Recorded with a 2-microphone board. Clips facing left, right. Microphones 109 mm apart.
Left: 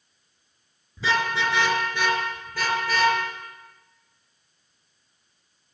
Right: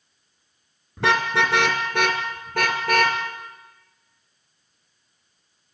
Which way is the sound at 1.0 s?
70° right (ahead or behind).